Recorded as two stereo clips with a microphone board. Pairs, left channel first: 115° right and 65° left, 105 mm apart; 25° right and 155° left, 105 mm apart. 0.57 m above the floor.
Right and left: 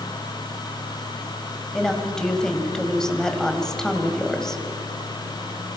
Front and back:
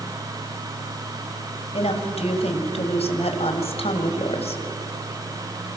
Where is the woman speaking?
30° right, 3 m.